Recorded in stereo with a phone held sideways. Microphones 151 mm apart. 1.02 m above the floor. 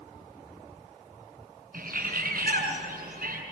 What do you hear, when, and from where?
1.7 s a bird: 80° right, 8 m